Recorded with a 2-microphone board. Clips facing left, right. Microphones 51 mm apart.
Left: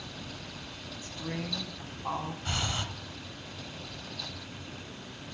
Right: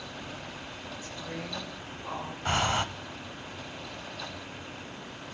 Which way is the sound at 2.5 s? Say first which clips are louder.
Right 10 dB; 45° right (ahead or behind).